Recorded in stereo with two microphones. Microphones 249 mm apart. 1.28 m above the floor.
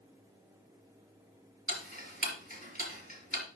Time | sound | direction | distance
1.7 | ticking | 35° right (ahead or behind) | 4.5 m